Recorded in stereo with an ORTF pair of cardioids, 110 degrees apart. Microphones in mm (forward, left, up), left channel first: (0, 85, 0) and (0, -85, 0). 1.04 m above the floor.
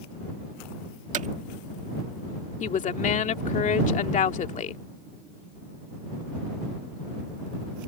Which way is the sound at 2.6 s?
45° left.